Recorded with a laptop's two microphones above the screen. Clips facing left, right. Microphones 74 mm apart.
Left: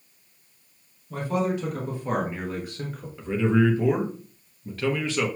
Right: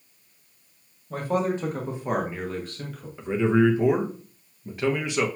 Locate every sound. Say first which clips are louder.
1.1 s a man speaking: right 1 dB; 50° right (ahead or behind), 1.4 m; by 3.1 s 30° left (ahead or behind), 1.0 m
3.2 s a man speaking: right 1 dB; 20° right (ahead or behind), 0.8 m